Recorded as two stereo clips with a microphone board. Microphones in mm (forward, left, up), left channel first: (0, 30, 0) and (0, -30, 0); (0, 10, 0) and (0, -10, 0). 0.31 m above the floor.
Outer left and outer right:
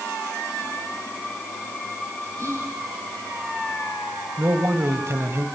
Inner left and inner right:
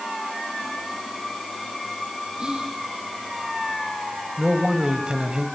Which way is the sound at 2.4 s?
55° right (ahead or behind).